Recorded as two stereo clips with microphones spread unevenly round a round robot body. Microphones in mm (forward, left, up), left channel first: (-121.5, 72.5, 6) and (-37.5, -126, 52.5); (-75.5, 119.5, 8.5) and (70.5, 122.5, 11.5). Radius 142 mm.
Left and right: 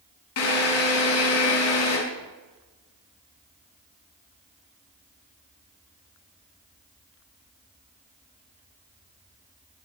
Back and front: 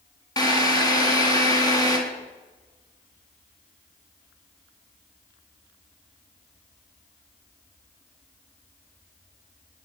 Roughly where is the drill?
Behind left.